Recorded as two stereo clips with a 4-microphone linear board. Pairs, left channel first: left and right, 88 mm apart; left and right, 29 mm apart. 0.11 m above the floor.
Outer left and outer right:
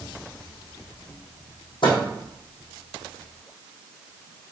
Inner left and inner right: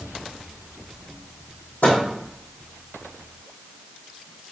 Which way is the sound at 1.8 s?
70° left (ahead or behind).